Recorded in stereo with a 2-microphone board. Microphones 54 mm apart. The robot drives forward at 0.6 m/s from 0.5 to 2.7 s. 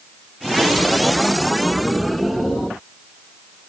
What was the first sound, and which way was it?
Only background noise.